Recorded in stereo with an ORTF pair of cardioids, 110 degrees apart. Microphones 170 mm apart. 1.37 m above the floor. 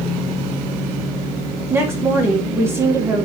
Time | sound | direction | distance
1.7 | a woman speaking | 15° right | 1.5 m